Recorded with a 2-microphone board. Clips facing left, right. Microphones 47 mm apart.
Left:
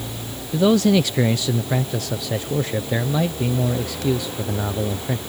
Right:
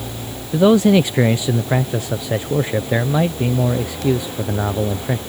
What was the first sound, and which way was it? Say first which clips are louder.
A man speaking: right 4 dB; 25° right (ahead or behind).